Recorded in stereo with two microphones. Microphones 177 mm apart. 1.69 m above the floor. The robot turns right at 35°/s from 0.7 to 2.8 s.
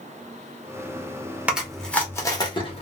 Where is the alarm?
No alarm in this recording.